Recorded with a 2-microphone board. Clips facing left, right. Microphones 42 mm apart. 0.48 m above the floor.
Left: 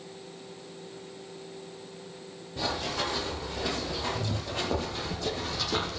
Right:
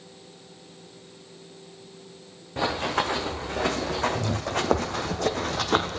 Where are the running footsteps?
70° right (ahead or behind), 2.5 m; by 6.0 s 50° right (ahead or behind), 1.1 m.